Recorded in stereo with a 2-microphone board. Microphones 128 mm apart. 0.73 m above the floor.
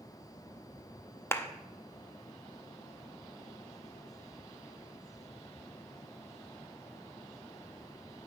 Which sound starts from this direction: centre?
A clap, at 1.3 s.